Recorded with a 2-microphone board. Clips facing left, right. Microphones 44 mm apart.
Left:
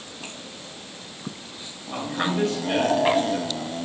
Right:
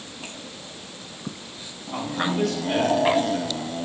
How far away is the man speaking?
About 3.5 m.